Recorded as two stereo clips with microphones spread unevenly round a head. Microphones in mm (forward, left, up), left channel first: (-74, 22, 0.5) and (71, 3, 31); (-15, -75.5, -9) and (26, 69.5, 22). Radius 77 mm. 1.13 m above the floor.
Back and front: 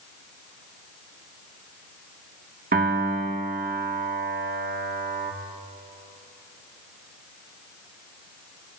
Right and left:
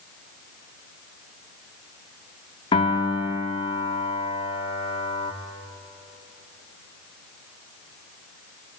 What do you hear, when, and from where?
2.7 s a piano: 45° right, 1.8 m